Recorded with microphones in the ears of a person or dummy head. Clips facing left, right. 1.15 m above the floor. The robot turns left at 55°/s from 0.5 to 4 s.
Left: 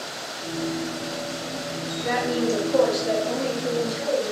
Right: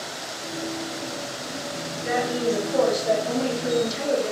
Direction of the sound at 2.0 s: 65° left.